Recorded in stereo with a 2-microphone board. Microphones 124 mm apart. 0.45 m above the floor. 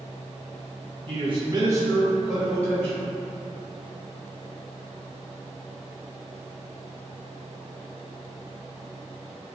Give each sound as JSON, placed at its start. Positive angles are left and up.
{"t": 1.1, "sound": "a man speaking", "side_deg": -50, "distance_m": 1.0}